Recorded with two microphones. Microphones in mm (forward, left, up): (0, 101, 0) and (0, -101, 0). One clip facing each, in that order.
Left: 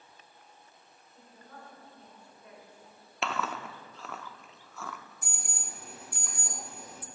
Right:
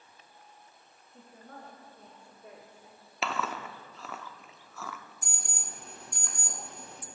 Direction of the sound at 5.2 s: 5° left (ahead or behind).